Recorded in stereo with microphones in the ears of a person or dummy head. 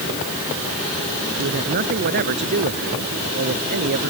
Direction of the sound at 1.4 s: 55° right (ahead or behind).